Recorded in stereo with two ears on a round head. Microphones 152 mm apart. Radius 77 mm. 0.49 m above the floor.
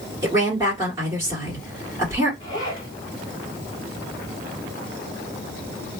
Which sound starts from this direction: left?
A zipper, at 2.4 s.